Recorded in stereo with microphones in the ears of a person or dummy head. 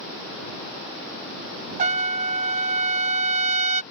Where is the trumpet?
45° right (ahead or behind).